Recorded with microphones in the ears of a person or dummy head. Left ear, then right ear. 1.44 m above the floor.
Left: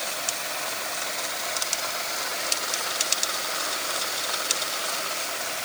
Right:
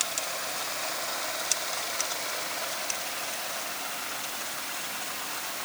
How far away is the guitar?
No guitar in this recording.